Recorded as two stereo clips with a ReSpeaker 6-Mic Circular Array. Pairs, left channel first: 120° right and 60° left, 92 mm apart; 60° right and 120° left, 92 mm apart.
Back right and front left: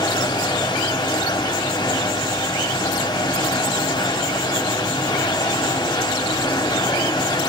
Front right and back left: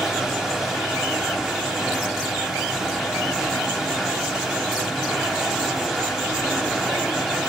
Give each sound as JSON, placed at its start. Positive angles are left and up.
{"t": 0.0, "sound": "running water", "azimuth_deg": -155, "distance_m": 0.9}